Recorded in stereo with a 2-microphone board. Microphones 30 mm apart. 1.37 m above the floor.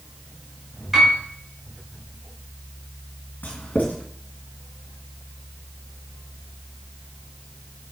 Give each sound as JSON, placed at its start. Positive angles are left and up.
{"t": 0.9, "sound": "a piano", "side_deg": -10, "distance_m": 3.5}
{"t": 3.4, "sound": "writing", "side_deg": 65, "distance_m": 2.5}